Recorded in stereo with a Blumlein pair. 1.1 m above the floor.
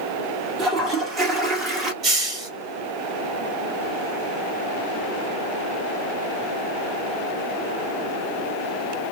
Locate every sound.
0.6 s a toilet flushing: 25° right, 1.2 m
2.0 s a hiss: 25° right, 1.4 m